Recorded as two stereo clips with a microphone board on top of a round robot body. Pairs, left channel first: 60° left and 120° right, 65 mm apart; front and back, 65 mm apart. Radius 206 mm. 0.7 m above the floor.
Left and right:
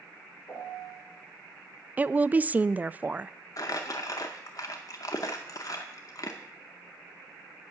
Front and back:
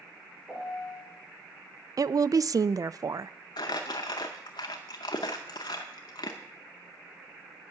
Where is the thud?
No thud in this recording.